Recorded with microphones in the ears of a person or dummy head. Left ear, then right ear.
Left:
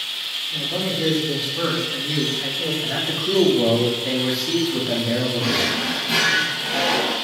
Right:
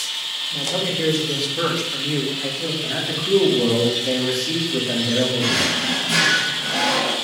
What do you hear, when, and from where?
0.5 s a man speaking: 20° right (ahead or behind), 4 m; by 2.7 s 15° left (ahead or behind), 3 m
2.8 s a man speaking: 15° left (ahead or behind), 3 m
5.4 s a drawer: 5° left (ahead or behind), 3.5 m